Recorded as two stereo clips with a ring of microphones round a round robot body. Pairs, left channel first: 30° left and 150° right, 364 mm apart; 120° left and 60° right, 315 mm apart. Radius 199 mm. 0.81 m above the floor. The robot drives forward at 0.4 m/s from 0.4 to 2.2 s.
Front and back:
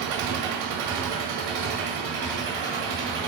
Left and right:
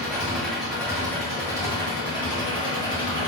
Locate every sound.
0.0 s an engine running: 145° right, 0.9 m; by 3.3 s 160° right, 1.6 m